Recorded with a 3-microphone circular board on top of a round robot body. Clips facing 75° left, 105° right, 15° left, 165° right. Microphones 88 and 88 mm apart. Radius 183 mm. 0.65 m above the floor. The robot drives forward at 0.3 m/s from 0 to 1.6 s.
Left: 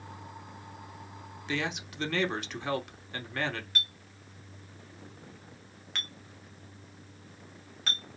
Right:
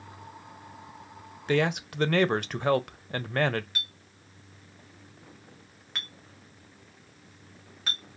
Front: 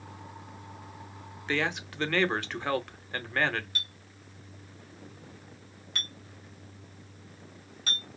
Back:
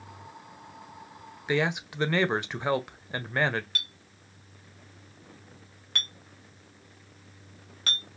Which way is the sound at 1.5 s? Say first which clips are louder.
Right 8 dB, back 3 dB; 90° right.